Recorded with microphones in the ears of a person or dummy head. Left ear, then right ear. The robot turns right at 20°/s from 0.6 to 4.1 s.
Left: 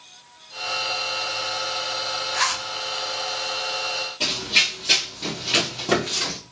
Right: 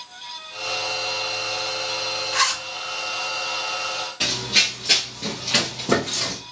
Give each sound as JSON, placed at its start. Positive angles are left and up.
{"t": 2.3, "sound": "a zipper", "side_deg": -40, "distance_m": 1.2}
{"t": 4.2, "sound": "running footsteps", "side_deg": -25, "distance_m": 1.4}